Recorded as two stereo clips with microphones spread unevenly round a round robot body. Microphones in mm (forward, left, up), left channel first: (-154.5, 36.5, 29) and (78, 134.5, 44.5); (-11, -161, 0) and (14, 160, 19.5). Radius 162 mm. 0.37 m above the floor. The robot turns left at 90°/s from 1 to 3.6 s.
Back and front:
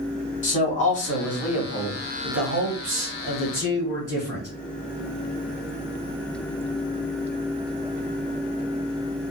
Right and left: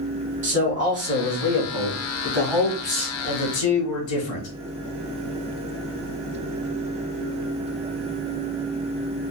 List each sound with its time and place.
0.4 s a man speaking: 150° left, 2.5 m; by 4.5 s 80° right, 2.5 m